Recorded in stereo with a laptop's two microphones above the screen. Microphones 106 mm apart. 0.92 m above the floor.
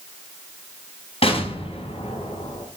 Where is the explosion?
80° left, 4 m.